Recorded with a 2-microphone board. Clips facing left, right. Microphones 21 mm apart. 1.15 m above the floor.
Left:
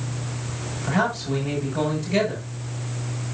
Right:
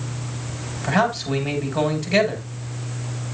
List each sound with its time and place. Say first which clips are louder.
0.8 s a man speaking: right 3 dB; 40° right (ahead or behind), 6 m